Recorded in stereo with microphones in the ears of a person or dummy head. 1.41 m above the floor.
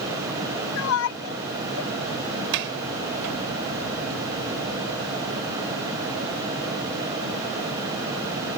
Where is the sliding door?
65° right (ahead or behind).